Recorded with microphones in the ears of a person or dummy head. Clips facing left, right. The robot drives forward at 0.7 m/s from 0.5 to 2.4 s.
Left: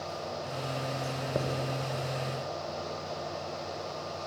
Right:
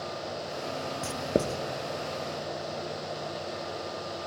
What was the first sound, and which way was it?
Writing, 50° right (ahead or behind).